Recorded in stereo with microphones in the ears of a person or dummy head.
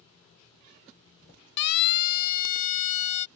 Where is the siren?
60° left (ahead or behind); by 3.3 s 40° left (ahead or behind).